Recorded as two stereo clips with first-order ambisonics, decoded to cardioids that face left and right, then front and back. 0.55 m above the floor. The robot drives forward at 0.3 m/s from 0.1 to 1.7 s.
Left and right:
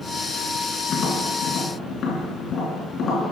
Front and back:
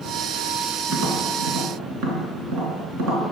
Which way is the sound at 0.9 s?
145° left.